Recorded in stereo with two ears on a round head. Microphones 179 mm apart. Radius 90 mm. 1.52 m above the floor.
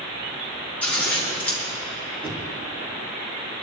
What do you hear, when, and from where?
0.8 s scissors: 10° left (ahead or behind), 4.5 m
2.2 s knocking: 10° left (ahead or behind), 3.5 m